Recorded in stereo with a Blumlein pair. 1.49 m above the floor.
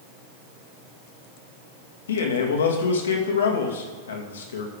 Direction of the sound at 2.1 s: 65° left.